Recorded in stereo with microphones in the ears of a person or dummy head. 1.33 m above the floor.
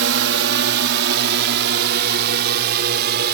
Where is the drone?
60° right (ahead or behind); by 3.4 s 50° right (ahead or behind).